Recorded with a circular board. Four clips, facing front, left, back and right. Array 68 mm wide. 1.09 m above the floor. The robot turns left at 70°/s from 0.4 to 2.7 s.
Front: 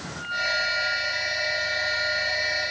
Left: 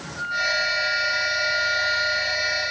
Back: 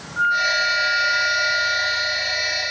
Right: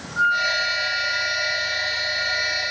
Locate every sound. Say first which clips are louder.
0.2 s a flute: right 5 dB, back 9 dB; 130° right, 2.5 m; by 2.7 s 70° left, 2.5 m